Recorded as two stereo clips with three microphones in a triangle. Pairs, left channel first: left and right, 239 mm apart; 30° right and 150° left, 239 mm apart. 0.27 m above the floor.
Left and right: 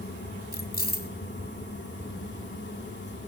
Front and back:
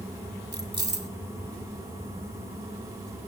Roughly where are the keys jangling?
Behind left.